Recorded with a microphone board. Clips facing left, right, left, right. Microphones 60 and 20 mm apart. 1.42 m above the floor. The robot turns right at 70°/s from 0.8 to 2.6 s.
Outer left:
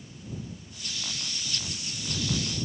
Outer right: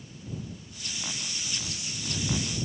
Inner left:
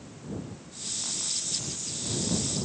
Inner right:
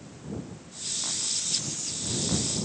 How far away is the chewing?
I don't hear chewing.